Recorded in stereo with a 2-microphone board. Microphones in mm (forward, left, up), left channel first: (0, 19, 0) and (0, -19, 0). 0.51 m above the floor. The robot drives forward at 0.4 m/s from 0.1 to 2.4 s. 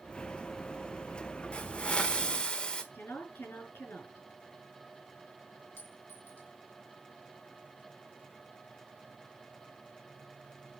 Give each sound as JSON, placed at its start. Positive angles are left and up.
{"t": 1.5, "sound": "a hiss", "side_deg": 35, "distance_m": 1.1}
{"t": 2.9, "sound": "a woman speaking", "side_deg": 80, "distance_m": 6.0}
{"t": 5.8, "sound": "a clink", "side_deg": 70, "distance_m": 3.5}